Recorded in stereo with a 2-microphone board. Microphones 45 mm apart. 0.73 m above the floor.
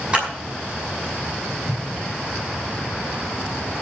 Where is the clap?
25° right (ahead or behind), 5.5 m.